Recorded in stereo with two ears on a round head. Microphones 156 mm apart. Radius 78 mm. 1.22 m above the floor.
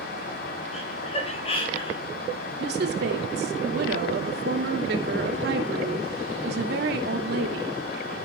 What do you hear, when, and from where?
0.7 s laughter: 35° left (ahead or behind), 7 m; by 2.0 s 30° left (ahead or behind), 6.5 m
2.6 s a woman speaking: 65° right (ahead or behind), 2.5 m